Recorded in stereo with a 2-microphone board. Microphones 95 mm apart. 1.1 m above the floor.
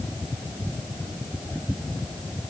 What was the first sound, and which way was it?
Only background noise.